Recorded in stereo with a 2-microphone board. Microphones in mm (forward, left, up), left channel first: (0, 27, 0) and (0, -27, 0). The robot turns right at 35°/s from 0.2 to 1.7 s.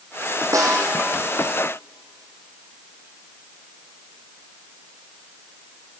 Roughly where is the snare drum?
Right.